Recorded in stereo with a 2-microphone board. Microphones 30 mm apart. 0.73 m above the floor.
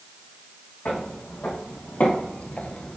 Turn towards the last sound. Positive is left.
turn(degrees=15)  # may be behind; listen again after turning